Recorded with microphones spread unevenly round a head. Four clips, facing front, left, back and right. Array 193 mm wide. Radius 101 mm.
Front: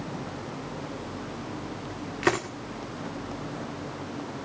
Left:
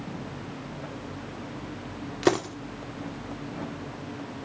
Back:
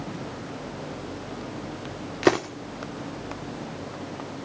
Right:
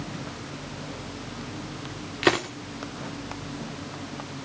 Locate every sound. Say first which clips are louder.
2.2 s a dropped coin: even, back 5 dB; 165° left, 1.1 m